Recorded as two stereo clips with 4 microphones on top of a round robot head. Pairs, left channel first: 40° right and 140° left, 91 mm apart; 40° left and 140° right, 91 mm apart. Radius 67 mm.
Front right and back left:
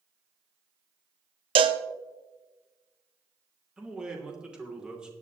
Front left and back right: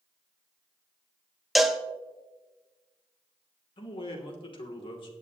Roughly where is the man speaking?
Ahead left.